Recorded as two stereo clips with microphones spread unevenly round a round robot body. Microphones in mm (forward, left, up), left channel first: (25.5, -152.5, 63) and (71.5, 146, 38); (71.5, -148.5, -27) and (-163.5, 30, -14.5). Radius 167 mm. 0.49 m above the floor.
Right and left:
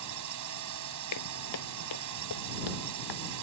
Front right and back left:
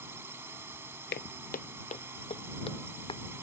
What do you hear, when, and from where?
0.0 s a drone: 60° left
1.1 s footsteps: 90° right; by 3.2 s 110° right